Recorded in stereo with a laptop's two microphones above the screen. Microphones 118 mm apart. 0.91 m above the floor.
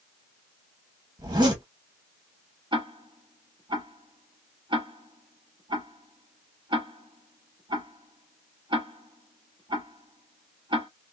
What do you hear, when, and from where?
1.2 s a zipper: 40° right (ahead or behind), 1.4 m
2.7 s ticking: 45° right (ahead or behind), 1.0 m